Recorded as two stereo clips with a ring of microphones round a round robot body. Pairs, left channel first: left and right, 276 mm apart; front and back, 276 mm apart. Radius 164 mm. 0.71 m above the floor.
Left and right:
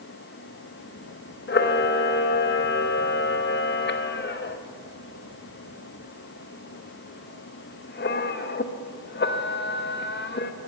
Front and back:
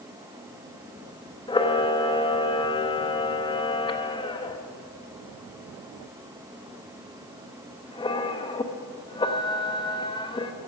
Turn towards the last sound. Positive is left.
turn(degrees=65)